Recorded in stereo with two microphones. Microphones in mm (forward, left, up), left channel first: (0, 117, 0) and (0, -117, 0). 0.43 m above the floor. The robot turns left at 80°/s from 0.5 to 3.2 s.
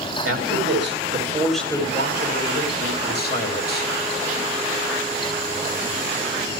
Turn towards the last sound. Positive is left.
turn(degrees=45)